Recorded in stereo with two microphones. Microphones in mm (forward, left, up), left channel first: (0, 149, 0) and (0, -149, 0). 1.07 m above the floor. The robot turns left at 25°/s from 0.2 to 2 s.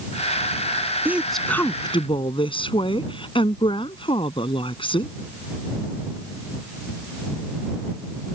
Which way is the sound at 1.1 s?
5° right (ahead or behind).